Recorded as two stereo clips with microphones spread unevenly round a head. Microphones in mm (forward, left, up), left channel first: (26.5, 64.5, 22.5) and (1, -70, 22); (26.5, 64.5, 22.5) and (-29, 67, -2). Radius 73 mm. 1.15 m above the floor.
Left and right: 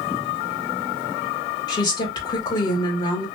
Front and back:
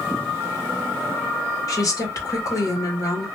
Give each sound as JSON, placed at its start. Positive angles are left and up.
{"t": 1.7, "sound": "a woman speaking", "azimuth_deg": 20, "distance_m": 1.4}